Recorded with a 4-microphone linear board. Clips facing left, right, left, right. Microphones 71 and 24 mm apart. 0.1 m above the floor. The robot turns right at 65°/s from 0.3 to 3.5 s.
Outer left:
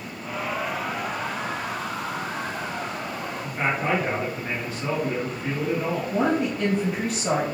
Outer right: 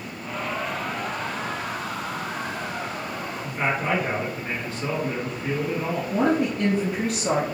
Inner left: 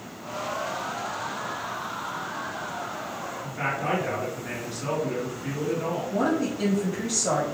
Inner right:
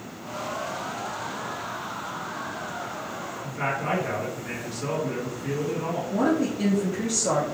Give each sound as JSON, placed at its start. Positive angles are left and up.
{"t": 3.4, "sound": "a man speaking", "side_deg": 10, "distance_m": 1.2}
{"t": 6.1, "sound": "a woman speaking", "side_deg": -5, "distance_m": 1.7}